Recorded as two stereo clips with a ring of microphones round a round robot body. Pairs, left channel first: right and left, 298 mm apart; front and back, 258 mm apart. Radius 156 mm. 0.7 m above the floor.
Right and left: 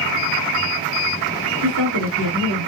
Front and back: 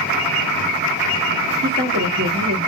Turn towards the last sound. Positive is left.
turn(degrees=135)